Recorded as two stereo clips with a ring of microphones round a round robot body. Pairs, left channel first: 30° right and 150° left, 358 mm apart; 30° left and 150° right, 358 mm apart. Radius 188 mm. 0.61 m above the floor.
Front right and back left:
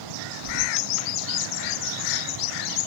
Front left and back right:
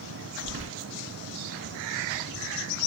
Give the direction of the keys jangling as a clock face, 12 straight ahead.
6 o'clock.